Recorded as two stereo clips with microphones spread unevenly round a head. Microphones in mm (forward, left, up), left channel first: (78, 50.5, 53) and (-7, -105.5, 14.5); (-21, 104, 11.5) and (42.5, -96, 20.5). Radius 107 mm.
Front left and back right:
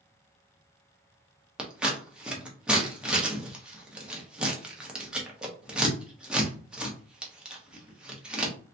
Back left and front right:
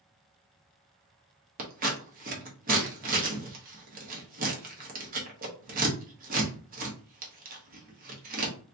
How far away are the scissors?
About 1.0 m.